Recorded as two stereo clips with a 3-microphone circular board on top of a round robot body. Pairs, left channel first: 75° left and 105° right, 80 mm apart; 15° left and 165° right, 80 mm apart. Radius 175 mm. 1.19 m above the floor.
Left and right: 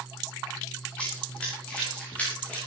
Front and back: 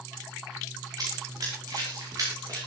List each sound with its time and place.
1.0 s running footsteps: 155° left, 10 m; by 2.6 s 150° left, 11.5 m